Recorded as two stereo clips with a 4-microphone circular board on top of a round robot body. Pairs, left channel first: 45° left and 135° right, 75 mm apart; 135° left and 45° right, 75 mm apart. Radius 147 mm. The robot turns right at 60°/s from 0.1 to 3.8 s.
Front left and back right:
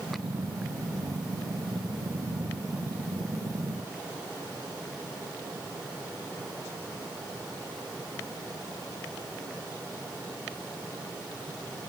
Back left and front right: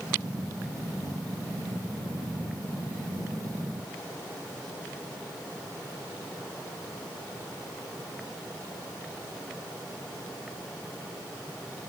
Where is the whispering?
I don't hear whispering.